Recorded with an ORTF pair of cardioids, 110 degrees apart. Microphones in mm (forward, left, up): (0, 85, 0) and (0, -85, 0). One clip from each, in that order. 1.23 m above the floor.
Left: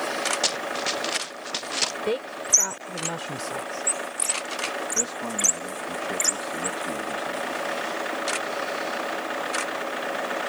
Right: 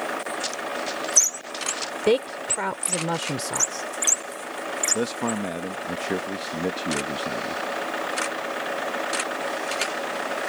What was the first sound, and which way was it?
Running footsteps, 45° left.